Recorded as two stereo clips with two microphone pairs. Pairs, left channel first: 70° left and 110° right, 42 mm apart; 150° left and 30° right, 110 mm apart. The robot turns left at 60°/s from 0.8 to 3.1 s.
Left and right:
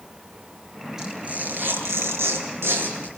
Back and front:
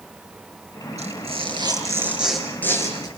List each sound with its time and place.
1.0 s tearing paper: 35° right, 8 m; by 3.1 s 160° right, 8 m